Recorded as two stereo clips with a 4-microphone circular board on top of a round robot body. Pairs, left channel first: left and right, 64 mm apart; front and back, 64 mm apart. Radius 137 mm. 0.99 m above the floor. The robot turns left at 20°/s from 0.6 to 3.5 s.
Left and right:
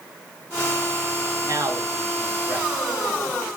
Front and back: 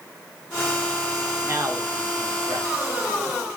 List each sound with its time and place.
1.4 s a man speaking: 125° right, 3.5 m; by 3.4 s 165° right, 3.5 m